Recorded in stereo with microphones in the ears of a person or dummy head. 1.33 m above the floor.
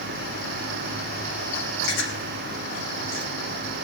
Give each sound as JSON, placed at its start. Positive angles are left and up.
{"t": 1.8, "sound": "chewing", "side_deg": 85, "distance_m": 5.5}